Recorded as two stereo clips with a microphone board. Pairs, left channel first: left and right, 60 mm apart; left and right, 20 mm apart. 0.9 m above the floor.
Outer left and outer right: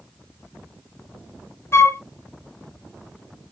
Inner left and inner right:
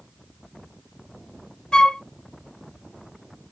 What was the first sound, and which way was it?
A flute, 45° left (ahead or behind).